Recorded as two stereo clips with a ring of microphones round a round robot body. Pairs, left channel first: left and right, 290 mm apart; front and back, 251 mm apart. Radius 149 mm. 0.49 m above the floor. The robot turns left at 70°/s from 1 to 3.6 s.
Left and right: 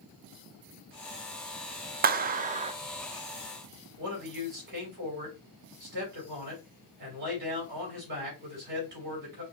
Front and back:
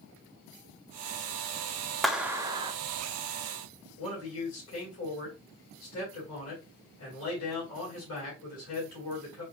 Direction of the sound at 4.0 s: 35° right.